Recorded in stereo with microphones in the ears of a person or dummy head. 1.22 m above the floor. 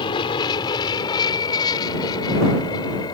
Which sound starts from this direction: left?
An aircraft, at 0.0 s.